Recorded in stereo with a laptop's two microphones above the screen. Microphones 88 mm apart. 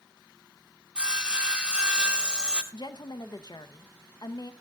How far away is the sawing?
About 0.9 m.